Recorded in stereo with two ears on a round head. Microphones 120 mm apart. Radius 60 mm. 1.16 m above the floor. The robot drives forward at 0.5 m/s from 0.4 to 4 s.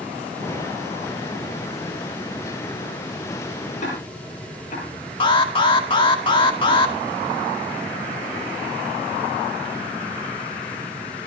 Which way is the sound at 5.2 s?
35° left (ahead or behind).